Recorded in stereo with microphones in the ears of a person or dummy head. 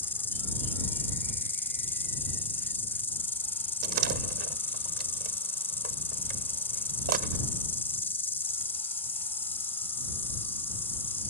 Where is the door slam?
55° right (ahead or behind).